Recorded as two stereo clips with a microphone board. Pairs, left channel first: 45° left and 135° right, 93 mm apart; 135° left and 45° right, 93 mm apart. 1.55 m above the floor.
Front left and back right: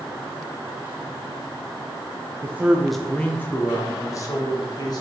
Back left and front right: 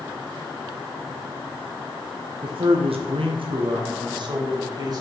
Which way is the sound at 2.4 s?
70° right.